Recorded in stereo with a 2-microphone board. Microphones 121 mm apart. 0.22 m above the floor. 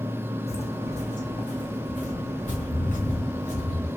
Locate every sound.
0.5 s footsteps: 55° left (ahead or behind), 0.8 m; by 3.9 s 75° left (ahead or behind), 2 m